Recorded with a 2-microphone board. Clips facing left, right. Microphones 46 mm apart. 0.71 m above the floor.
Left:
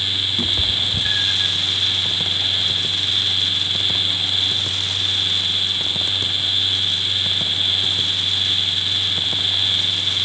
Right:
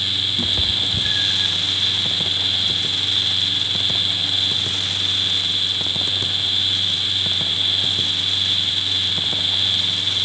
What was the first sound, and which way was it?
A cat meowing, 15° left (ahead or behind).